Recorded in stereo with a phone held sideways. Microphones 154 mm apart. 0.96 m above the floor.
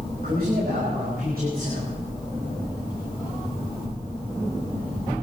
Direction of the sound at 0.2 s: 70° right (ahead or behind).